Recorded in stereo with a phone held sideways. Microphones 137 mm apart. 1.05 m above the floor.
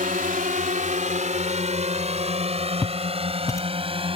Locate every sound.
0.0 s a drone: 75° right (ahead or behind); by 4.2 s 40° right (ahead or behind)
2.8 s footsteps: 20° left (ahead or behind)